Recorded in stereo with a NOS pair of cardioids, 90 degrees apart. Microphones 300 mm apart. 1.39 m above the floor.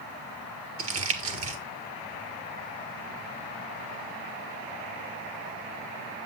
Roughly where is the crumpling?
Ahead right.